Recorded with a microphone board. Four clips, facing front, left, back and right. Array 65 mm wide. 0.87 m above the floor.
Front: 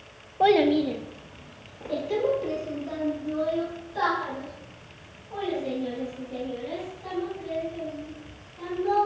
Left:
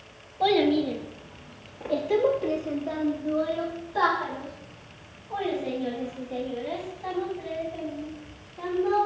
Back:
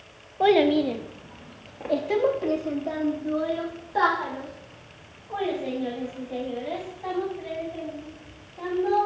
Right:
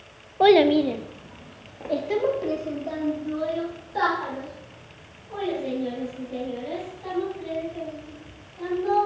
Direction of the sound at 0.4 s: 90° right.